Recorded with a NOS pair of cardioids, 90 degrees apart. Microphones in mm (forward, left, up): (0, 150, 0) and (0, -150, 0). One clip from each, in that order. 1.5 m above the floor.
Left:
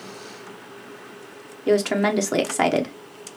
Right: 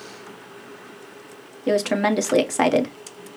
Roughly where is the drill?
I don't hear a drill.